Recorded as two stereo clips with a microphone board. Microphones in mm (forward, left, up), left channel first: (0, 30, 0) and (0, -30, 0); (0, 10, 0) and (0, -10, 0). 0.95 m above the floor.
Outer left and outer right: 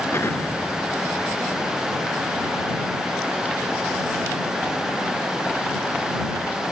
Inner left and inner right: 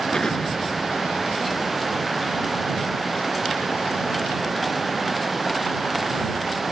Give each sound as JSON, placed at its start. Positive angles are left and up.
{"t": 0.1, "sound": "an explosion", "side_deg": 45}